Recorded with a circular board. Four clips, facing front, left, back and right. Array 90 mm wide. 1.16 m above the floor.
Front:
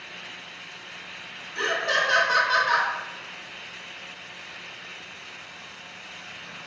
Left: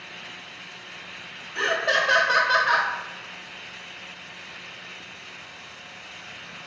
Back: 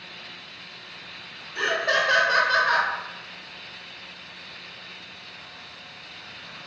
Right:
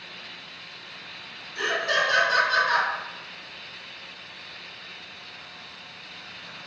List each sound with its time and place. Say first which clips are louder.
1.6 s laughter: left 2 dB, back 1 dB; 115° left, 1.2 m